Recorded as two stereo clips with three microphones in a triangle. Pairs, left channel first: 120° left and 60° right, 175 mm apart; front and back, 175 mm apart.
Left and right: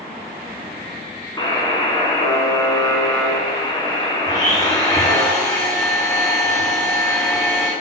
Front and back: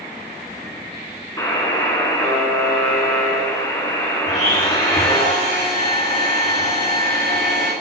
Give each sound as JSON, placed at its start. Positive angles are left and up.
{"t": 1.4, "sound": "a buzzer", "azimuth_deg": 65, "distance_m": 1.5}
{"t": 4.3, "sound": "a blender", "azimuth_deg": 50, "distance_m": 3.0}